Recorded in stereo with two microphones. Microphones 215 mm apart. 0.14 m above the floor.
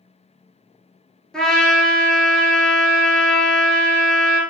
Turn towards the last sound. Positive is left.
turn(degrees=5)  # may be behind; listen again after turning